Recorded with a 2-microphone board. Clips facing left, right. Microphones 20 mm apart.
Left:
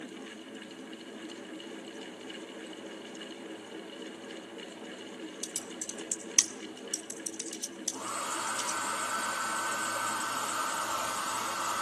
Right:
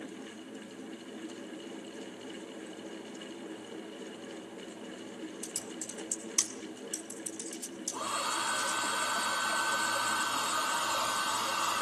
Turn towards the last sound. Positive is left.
turn(degrees=-80)